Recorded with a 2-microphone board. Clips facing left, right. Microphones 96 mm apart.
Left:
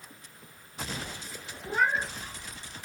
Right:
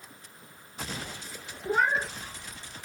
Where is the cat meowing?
45° right (ahead or behind), 0.8 m.